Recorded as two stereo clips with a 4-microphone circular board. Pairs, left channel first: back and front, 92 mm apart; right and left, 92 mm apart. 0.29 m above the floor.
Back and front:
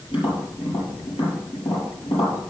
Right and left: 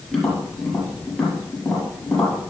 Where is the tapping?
170° right, 6 m.